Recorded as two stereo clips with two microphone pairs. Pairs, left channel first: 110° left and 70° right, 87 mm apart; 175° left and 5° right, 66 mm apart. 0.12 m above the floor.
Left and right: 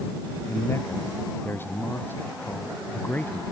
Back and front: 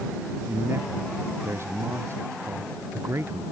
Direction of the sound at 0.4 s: 50° left.